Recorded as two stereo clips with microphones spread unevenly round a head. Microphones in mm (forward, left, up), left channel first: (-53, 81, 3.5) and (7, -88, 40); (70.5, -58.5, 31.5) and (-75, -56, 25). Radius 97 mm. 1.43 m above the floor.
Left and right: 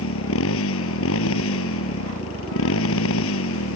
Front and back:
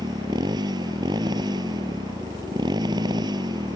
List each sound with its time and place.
0.0 s a motorcycle: 110° left